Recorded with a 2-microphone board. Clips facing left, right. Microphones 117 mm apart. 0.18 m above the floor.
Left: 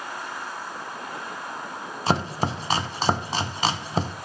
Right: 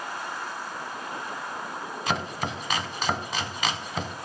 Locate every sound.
2.1 s chopping: 35° left (ahead or behind), 0.6 m